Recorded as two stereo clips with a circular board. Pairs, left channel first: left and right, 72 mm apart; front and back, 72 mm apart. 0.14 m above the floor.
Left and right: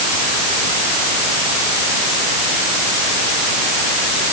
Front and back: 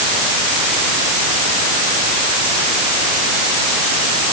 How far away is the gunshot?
I don't hear a gunshot.